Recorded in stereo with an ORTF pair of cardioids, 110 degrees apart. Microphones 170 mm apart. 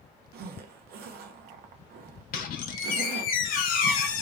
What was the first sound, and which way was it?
A zipper, 65° right.